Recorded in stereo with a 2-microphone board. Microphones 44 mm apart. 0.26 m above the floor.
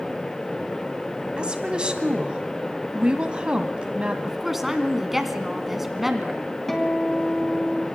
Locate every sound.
1.4 s a woman speaking: 20° right (ahead or behind), 1.9 m
4.2 s a woman speaking: 5° right (ahead or behind), 2 m
6.7 s a guitar: 5° left (ahead or behind), 2.5 m